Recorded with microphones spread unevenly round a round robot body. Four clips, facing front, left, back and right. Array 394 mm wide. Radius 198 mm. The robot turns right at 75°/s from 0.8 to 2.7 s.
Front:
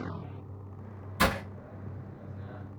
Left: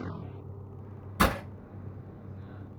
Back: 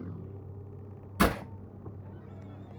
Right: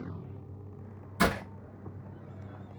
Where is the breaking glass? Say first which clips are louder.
Left 1 dB, back 1 dB; 125° left, 3.5 m; by 1.4 s 140° left, 3.5 m.